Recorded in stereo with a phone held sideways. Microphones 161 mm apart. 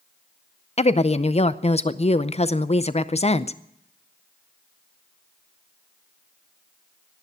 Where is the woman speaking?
40° left (ahead or behind), 0.6 m.